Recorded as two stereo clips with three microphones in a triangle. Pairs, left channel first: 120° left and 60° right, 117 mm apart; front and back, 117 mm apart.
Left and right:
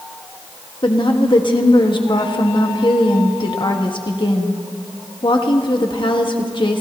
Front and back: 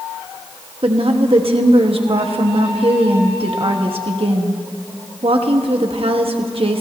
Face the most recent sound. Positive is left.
turn(degrees=155)